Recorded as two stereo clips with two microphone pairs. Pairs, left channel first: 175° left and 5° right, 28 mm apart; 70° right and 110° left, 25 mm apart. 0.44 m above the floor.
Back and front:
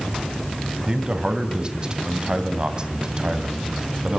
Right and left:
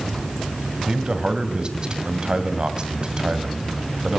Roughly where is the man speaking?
Ahead left.